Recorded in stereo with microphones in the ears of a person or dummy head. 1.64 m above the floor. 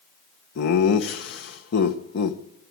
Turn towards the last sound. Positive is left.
turn(degrees=65)  # may be behind; listen again after turning